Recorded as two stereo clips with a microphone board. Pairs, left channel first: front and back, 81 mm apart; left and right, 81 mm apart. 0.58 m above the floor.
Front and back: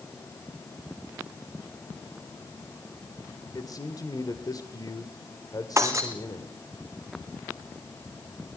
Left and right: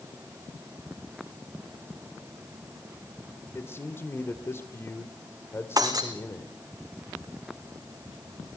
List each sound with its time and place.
3.5 s a man speaking: 35° left, 1.9 m
5.8 s breaking glass: 125° right, 2.5 m